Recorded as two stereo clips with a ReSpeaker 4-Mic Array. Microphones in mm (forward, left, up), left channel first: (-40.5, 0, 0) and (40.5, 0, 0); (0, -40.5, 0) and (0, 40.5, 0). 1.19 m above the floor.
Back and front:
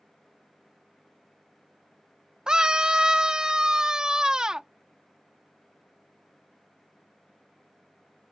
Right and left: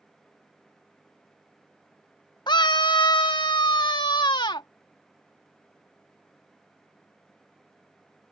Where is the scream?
80° right.